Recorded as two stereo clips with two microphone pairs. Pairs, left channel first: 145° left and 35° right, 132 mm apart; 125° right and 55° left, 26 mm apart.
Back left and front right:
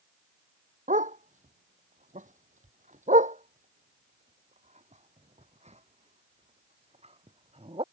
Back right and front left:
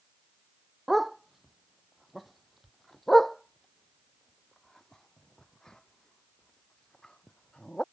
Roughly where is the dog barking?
Ahead right.